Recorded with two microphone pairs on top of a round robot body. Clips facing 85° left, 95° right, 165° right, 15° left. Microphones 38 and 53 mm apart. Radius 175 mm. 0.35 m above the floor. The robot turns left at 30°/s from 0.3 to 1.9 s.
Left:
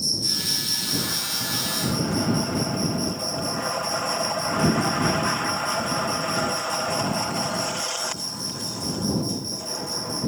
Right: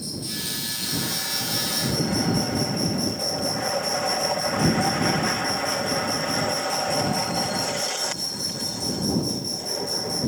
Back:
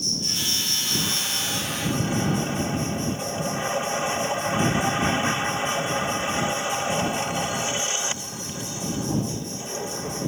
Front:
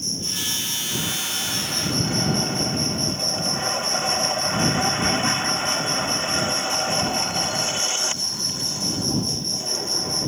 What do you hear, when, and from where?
0.0 s an insect: 45° right; by 10.3 s 95° right